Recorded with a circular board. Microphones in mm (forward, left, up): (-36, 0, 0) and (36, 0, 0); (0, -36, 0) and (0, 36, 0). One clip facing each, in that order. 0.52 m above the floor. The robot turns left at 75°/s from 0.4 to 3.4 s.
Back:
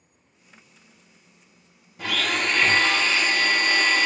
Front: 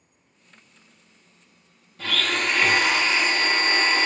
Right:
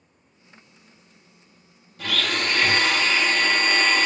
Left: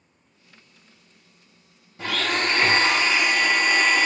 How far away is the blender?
About 0.7 m.